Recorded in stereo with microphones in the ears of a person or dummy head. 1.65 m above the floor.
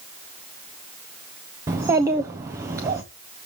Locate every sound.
1.7 s a child speaking: 15° right (ahead or behind), 0.7 m